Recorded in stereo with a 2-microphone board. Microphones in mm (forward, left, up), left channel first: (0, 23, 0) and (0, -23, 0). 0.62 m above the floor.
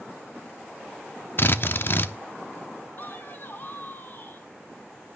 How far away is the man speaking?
About 1.9 m.